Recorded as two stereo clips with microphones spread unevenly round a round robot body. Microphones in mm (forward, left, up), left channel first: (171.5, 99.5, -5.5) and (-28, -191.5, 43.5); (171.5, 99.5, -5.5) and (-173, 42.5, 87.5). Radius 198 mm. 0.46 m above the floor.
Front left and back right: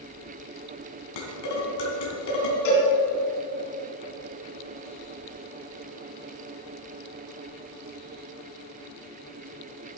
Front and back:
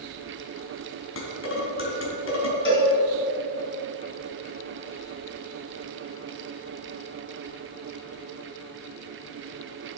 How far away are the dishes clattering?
About 2.5 m.